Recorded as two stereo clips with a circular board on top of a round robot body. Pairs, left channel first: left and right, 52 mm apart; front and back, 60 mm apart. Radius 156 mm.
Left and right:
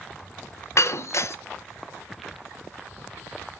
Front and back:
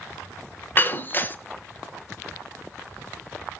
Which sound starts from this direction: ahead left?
Breaking glass, at 0.8 s.